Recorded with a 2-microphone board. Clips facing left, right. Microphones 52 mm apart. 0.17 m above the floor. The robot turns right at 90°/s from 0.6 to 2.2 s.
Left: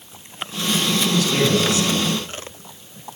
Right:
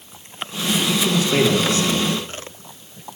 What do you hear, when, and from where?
0.9 s a man speaking: 170° right, 1.2 m; by 2.1 s 55° right, 1.2 m